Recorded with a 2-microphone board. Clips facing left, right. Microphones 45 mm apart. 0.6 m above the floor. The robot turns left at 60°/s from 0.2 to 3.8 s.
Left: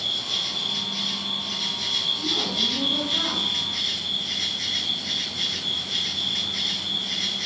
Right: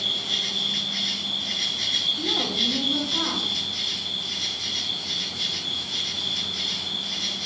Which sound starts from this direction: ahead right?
An insect, at 0.0 s.